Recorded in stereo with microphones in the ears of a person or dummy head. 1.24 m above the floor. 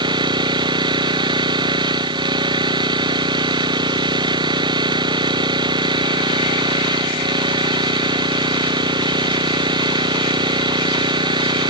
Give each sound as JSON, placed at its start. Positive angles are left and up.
{"t": 0.0, "sound": "an engine running", "side_deg": -25}